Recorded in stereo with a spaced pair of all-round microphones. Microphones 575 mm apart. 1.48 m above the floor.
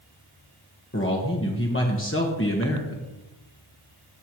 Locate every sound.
0.9 s a man speaking: 20° left (ahead or behind), 1.3 m